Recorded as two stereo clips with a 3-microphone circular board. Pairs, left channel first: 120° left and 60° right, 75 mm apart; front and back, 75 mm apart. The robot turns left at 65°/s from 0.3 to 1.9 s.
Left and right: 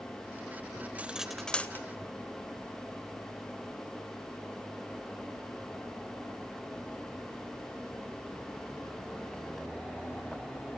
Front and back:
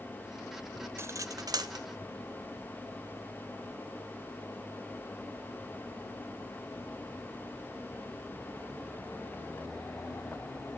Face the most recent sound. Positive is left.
turn(degrees=170)